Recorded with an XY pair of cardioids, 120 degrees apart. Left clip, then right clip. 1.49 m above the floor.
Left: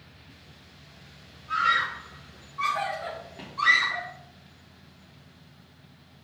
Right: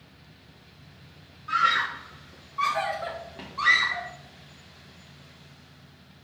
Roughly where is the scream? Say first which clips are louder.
Right 1 dB; ahead right.